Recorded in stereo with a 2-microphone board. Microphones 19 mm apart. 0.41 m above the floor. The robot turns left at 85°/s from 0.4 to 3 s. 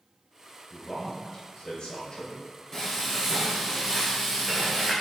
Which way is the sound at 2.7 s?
30° left (ahead or behind).